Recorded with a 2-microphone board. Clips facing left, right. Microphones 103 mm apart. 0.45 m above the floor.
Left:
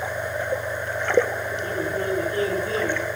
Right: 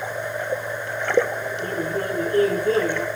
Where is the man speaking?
45° right (ahead or behind), 2.0 m.